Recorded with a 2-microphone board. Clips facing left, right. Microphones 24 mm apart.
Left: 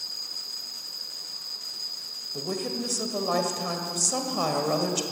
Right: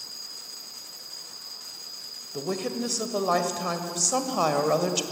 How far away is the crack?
No crack in this recording.